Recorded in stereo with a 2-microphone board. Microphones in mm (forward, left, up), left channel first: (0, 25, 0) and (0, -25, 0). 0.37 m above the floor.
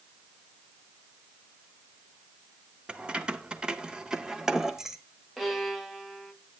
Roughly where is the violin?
Centre.